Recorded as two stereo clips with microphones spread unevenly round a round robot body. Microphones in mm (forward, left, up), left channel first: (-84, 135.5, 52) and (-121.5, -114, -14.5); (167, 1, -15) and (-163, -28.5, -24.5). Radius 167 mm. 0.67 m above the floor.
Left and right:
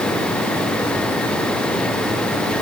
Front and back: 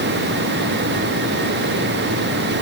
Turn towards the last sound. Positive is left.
No sound to turn to.